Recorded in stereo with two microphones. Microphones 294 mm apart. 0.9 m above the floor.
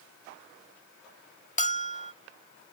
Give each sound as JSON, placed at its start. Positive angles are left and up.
{"t": 1.6, "sound": "a bell", "side_deg": 25}